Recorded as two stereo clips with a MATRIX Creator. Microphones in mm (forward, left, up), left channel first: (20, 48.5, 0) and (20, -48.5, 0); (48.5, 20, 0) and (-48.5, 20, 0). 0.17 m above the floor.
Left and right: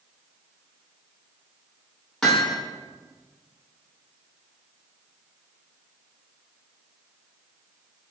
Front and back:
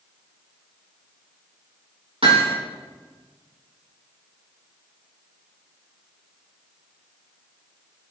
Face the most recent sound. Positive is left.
turn(degrees=175)